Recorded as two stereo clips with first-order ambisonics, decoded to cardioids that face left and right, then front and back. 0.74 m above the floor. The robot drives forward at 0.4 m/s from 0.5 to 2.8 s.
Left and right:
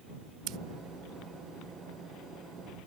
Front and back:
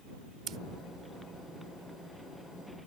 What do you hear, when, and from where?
0.5 s scissors: 125° right; by 0.6 s 130° right